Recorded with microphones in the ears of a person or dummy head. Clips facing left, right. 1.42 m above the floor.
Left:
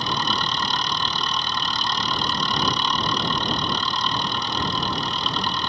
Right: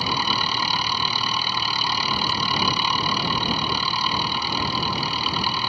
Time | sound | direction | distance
0.0 | an engine running | 5° right (ahead or behind) | ?